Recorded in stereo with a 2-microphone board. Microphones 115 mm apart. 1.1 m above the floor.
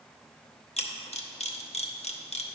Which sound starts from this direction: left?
A camera shutter, at 0.8 s.